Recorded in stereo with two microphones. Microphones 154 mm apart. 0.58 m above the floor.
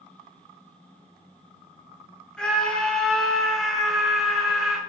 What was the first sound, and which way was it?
A scream, 5° left (ahead or behind).